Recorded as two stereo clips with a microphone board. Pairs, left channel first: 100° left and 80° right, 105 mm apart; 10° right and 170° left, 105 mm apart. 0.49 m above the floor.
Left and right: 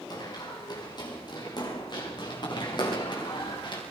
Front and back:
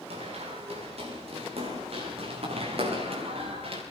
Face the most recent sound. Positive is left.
turn(degrees=145)